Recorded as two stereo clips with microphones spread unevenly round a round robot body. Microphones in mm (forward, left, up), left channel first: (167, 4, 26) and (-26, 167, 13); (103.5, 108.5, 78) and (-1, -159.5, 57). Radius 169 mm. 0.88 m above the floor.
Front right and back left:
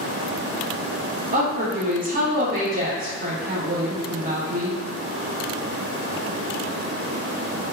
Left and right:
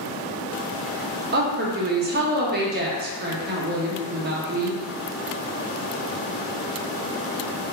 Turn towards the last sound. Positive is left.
turn(degrees=-165)